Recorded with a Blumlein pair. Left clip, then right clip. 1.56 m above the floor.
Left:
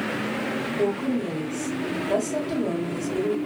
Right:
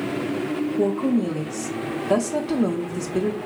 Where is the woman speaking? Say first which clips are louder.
Right 3 dB; 65° right, 0.8 m.